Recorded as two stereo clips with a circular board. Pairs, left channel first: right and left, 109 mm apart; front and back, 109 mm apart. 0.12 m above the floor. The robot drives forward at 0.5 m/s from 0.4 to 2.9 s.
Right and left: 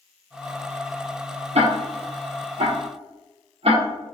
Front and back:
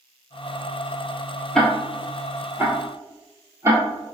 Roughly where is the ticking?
Left.